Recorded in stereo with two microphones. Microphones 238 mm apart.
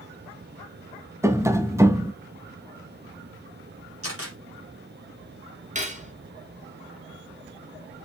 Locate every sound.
1.2 s tapping: 10° right (ahead or behind), 0.8 m
4.0 s a camera shutter: 70° right (ahead or behind), 5 m
5.8 s cutlery clinking: 30° right (ahead or behind), 2.5 m